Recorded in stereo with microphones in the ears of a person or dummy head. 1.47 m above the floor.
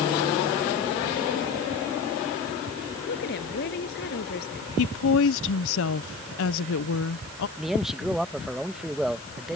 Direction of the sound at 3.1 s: 55° left (ahead or behind).